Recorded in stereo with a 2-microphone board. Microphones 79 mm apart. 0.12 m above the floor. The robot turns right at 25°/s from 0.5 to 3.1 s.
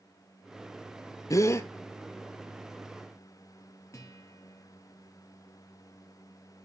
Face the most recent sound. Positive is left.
turn(degrees=40)  # may be behind; listen again after turning